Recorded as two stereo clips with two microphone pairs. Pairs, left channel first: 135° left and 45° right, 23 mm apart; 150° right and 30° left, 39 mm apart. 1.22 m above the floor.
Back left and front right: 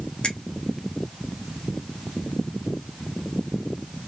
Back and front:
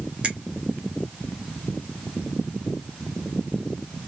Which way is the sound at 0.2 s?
90° left.